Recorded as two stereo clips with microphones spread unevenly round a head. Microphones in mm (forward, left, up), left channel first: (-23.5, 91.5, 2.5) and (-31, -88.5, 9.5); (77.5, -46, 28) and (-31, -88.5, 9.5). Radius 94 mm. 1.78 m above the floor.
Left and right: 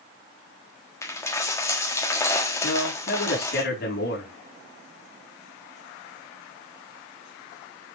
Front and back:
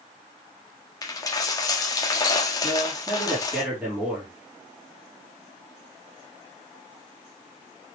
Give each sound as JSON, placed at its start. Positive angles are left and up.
{"t": 1.0, "sound": "a dropped coin", "azimuth_deg": 20, "distance_m": 1.4}
{"t": 2.6, "sound": "a man speaking", "azimuth_deg": 115, "distance_m": 5.0}